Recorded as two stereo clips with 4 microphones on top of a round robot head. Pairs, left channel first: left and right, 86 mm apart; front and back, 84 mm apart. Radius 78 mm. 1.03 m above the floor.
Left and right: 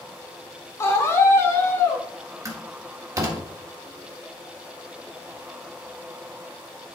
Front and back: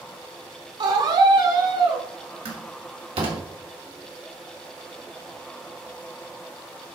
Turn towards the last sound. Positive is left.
turn(degrees=-140)